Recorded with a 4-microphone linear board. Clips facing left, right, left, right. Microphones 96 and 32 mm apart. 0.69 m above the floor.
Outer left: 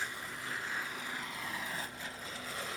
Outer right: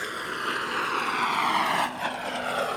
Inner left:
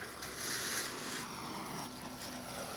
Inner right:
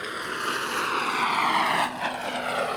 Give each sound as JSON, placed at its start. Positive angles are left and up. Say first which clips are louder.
{"t": 0.0, "sound": "a vehicle", "louder": "outer right 10 dB, inner right 15 dB", "side_deg": -70}